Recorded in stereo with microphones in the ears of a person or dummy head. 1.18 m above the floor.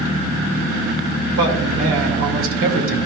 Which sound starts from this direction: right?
A man speaking, at 1.4 s.